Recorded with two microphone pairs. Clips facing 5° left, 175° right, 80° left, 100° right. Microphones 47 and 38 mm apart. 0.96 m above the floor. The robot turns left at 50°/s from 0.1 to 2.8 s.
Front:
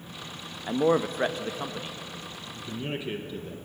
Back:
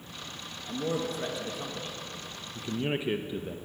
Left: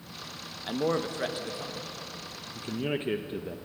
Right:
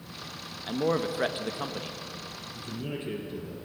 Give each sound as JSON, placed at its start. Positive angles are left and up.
{"t": 0.7, "sound": "a man speaking", "azimuth_deg": 0, "distance_m": 0.7}
{"t": 2.5, "sound": "a man speaking", "azimuth_deg": 135, "distance_m": 0.6}